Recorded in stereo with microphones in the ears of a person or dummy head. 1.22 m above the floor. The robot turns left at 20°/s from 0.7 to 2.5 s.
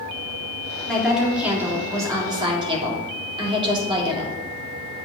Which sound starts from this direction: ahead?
A woman speaking, at 0.9 s.